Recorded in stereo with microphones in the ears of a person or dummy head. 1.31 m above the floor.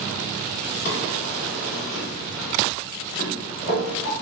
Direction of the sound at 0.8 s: 65° left (ahead or behind).